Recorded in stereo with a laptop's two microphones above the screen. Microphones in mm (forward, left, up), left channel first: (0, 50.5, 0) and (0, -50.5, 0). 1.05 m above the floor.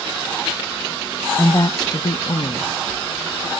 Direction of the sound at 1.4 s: 30° left (ahead or behind).